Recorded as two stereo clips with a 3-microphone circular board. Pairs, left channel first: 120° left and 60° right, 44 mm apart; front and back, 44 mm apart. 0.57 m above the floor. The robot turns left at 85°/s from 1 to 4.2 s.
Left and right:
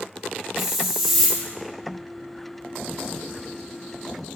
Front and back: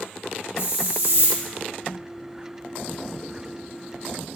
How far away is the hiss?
About 3.5 m.